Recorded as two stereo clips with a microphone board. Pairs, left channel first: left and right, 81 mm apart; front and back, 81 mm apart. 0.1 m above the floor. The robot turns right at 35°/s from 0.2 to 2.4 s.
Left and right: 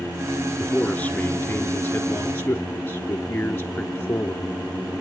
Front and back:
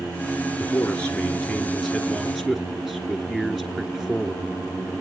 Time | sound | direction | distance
0.6 | a man speaking | 35° left | 1.2 m